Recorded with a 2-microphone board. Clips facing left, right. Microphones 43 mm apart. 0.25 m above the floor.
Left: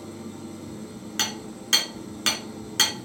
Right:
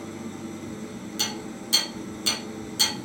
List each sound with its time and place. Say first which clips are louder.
0.0 s an engine running: right 2 dB; 60° right (ahead or behind), 1.2 m
1.2 s hammering: left 2 dB; 65° left (ahead or behind), 2 m